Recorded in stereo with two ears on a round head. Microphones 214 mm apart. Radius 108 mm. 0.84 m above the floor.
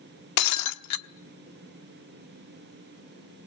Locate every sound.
0.4 s breaking glass: 80° left, 1.0 m